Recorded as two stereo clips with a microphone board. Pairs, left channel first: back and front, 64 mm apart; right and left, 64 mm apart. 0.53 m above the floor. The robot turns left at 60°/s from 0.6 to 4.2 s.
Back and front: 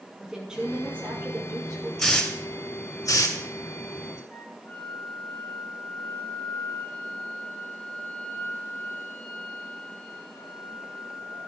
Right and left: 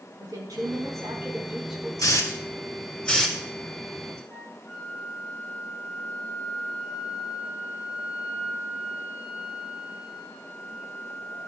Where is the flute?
160° right, 3 m.